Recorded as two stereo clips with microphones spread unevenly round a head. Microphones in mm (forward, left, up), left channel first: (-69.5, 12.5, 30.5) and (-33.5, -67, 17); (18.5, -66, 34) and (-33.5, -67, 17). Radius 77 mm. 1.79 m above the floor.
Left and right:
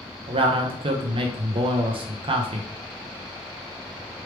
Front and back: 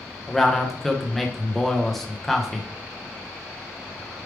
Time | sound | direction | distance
0.3 | a man speaking | 85° right | 0.7 m